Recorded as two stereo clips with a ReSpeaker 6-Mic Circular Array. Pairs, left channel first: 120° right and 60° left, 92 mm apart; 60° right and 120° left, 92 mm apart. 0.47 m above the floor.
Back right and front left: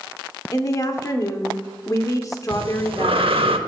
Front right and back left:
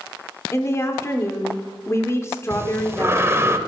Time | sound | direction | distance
0.5 | a woman speaking | 100° right | 0.9 m
2.5 | breathing | 60° left | 0.6 m